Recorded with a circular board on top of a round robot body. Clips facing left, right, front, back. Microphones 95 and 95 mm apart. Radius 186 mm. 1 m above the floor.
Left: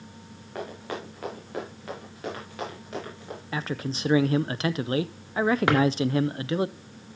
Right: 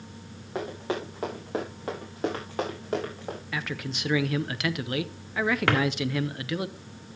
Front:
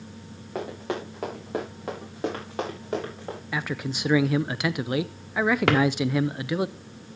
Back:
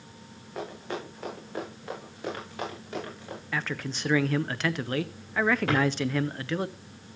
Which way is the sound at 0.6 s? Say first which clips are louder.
Right 4 dB, front 4 dB; 15° right.